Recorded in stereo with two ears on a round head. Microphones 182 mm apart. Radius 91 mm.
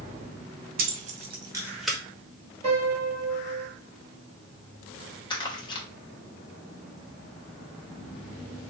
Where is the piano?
30° right (ahead or behind), 1.9 m.